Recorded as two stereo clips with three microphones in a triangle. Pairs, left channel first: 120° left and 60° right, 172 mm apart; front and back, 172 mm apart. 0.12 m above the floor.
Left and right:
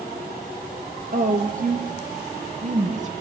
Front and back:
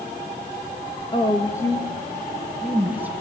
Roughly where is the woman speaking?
Ahead right.